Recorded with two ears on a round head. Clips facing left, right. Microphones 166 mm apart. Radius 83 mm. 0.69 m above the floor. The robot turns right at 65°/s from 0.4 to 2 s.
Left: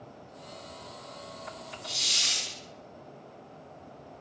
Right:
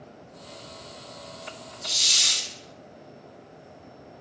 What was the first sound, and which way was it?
A hiss, 70° right (ahead or behind).